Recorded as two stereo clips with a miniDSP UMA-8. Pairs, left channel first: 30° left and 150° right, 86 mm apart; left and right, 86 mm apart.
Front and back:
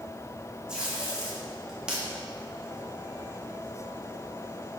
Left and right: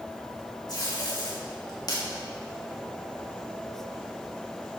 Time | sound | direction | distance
0.7 | tape being pulled | 130° left | 3 m